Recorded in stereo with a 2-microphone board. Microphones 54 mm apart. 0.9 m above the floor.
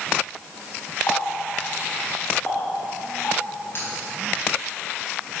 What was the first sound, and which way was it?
A running tap, 45° left (ahead or behind).